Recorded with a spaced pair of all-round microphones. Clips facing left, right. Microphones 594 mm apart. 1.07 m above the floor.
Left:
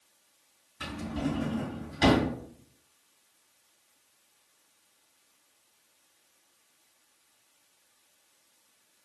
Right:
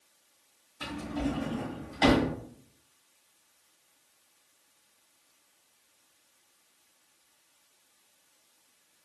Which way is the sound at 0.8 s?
35° left (ahead or behind).